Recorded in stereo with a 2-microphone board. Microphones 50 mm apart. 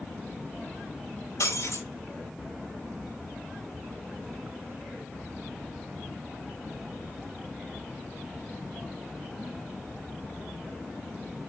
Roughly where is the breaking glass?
Left.